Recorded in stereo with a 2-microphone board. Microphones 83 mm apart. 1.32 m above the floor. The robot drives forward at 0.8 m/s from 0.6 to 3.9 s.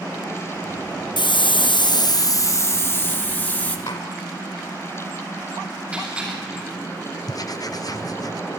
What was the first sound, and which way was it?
A hiss, 65° left (ahead or behind).